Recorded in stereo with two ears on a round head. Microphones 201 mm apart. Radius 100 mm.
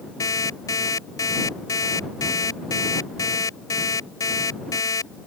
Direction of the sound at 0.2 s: 15° left (ahead or behind).